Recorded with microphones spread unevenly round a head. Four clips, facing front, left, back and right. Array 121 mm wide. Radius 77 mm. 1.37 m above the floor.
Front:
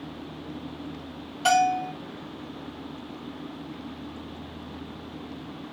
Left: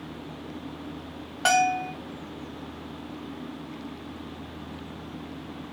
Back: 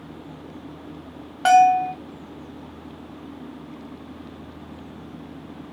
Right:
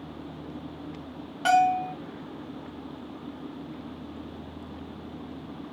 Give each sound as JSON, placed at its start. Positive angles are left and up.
{"t": 1.4, "sound": "a bell", "azimuth_deg": 180, "distance_m": 1.3}